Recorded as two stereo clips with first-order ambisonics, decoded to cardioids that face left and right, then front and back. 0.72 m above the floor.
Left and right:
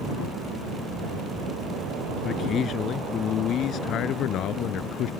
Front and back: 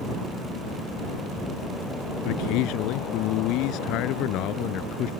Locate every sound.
2.2 s a man speaking: 25° left; by 5.1 s 45° left